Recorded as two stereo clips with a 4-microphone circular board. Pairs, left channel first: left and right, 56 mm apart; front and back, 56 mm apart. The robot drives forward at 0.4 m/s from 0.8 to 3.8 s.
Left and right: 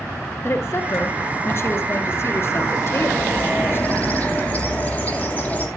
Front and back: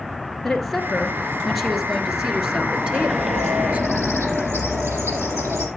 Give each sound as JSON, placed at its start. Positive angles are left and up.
{"t": 0.4, "sound": "a woman speaking", "azimuth_deg": 85, "distance_m": 3.0}
{"t": 2.8, "sound": "a bird", "azimuth_deg": 150, "distance_m": 4.0}